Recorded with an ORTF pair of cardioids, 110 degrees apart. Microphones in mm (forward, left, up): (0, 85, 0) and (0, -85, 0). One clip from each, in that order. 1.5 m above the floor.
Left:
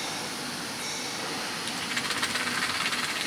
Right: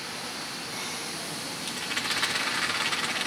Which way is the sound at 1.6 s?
Straight ahead.